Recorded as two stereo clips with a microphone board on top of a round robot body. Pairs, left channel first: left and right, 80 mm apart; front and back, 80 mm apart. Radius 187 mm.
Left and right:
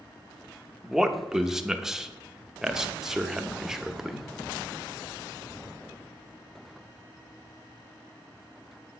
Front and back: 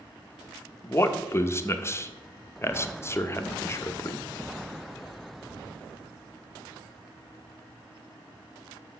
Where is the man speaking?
10° right, 1.0 m.